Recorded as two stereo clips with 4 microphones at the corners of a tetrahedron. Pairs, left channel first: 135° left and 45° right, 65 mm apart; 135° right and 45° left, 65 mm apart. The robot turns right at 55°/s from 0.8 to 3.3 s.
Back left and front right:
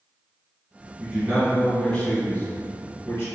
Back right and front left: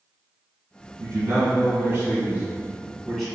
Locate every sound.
1.0 s a man speaking: 20° left, 1.4 m; by 3.3 s 145° left, 1.4 m